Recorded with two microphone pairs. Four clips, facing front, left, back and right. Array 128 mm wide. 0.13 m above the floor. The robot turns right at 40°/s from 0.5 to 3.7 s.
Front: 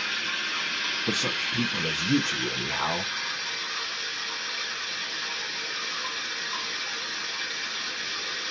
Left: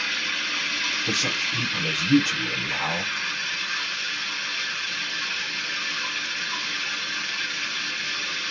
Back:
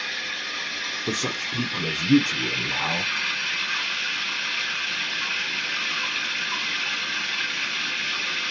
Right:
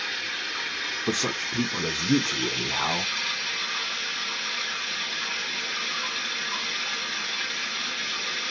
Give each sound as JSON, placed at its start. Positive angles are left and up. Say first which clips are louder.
{"t": 0.0, "sound": "running water", "louder": "left 3 dB, front 1 dB", "azimuth_deg": 60, "distance_m": 2.0}
{"t": 1.1, "sound": "a man speaking", "louder": "right 3 dB, back 2 dB", "azimuth_deg": -110, "distance_m": 1.1}